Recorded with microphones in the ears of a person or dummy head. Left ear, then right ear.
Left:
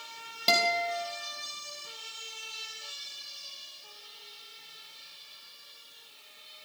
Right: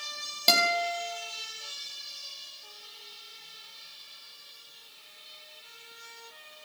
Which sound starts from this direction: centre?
A guitar, at 0.5 s.